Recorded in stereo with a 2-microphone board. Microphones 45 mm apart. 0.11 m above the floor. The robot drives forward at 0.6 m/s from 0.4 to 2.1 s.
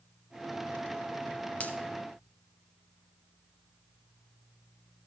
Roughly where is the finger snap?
Left.